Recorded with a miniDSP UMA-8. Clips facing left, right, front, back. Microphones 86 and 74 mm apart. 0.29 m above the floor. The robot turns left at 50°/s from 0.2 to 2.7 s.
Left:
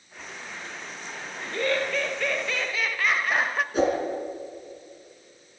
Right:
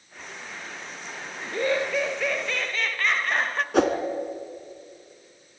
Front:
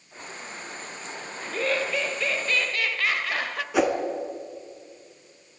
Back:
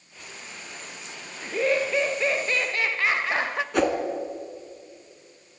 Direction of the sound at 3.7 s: 85° right.